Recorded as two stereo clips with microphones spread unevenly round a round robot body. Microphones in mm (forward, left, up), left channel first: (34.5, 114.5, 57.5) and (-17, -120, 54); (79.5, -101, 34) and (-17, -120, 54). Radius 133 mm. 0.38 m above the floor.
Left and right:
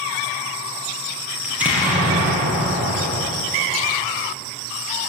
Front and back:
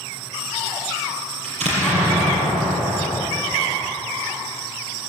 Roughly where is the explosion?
Behind.